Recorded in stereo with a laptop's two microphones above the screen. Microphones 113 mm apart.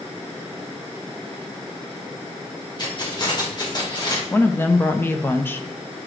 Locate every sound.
2.8 s keys jangling: 40° left (ahead or behind), 1.3 m
4.3 s a woman speaking: 20° left (ahead or behind), 0.6 m